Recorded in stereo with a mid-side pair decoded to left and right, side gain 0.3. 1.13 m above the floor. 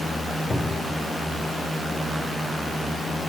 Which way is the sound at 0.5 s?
15° left.